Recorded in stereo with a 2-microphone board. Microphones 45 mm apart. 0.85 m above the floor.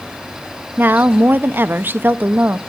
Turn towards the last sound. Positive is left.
turn(degrees=-50)  # may be behind; listen again after turning